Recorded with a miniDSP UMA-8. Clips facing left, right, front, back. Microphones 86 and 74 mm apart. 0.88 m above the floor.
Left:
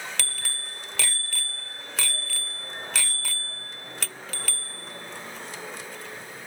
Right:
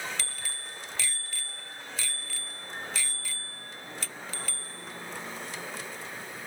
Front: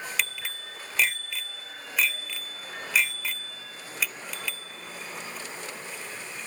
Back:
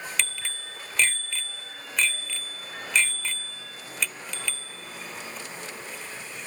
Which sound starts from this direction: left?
A bicycle bell, at 0.2 s.